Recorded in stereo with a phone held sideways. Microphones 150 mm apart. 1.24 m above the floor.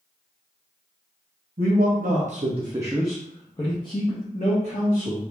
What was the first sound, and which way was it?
A man speaking, 80° right.